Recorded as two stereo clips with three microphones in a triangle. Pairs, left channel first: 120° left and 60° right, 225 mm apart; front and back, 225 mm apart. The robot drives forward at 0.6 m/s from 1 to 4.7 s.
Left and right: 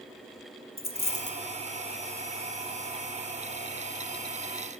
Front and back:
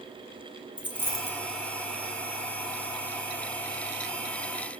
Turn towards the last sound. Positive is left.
turn(degrees=155)